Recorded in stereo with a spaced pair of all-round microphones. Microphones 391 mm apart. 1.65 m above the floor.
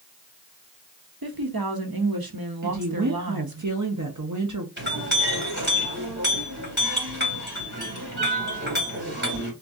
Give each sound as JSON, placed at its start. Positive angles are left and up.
{"t": 1.2, "sound": "a woman speaking", "side_deg": -65, "distance_m": 1.0}
{"t": 2.6, "sound": "a woman speaking", "side_deg": -50, "distance_m": 0.8}
{"t": 4.8, "sound": "a clink", "side_deg": -25, "distance_m": 2.5}